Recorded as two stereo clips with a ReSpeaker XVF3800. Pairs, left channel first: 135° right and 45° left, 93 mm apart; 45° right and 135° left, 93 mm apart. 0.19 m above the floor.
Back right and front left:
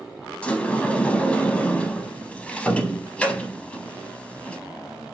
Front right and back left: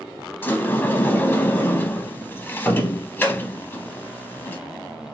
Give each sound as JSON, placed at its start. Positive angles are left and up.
{"t": 0.4, "sound": "a sliding door", "azimuth_deg": -80, "distance_m": 0.5}